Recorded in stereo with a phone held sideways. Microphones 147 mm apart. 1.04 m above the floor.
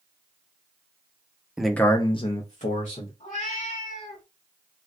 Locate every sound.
1.6 s a man speaking: 5° right (ahead or behind), 0.6 m; by 3.1 s 55° left (ahead or behind), 1.1 m
3.2 s a cat meowing: 55° left (ahead or behind), 1.3 m